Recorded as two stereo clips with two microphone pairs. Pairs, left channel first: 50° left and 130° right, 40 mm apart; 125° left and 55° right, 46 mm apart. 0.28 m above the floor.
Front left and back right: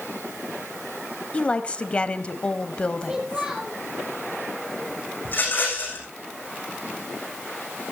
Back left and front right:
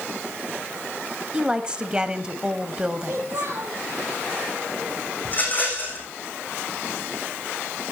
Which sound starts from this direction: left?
A rattle, at 5.2 s.